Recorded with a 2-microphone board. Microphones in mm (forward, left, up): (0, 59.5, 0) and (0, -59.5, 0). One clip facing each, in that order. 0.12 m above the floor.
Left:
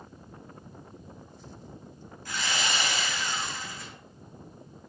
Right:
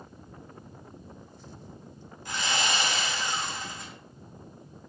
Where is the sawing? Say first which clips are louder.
Right 2 dB; 25° right (ahead or behind), 4.5 m.